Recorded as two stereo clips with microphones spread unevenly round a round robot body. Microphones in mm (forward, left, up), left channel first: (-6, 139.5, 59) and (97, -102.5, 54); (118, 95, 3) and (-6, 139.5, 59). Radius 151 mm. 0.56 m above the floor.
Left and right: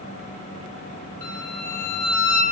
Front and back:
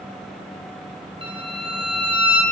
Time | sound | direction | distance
1.2 | a violin | 120° left | 1.0 m